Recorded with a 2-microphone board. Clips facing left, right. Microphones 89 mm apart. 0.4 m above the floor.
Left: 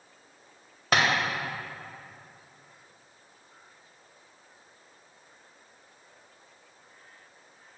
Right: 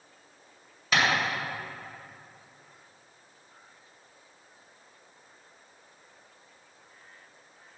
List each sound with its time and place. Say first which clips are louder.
0.9 s tapping: left 1 dB; 50° left (ahead or behind), 1.9 m